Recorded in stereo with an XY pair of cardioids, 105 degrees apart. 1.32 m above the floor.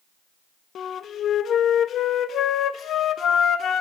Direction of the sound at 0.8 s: 60° left.